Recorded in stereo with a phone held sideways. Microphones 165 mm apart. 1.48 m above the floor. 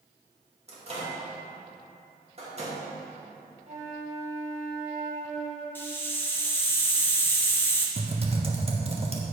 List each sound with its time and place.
0.7 s a microwave: 40° right (ahead or behind), 2.0 m
3.7 s a flute: 50° right (ahead or behind), 1.9 m
5.8 s a hiss: 15° left (ahead or behind), 0.9 m
8.0 s typing on a keyboard: 40° right (ahead or behind), 1.0 m